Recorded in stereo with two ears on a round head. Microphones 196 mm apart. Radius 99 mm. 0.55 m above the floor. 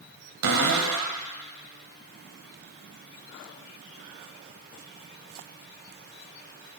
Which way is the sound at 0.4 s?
85° right.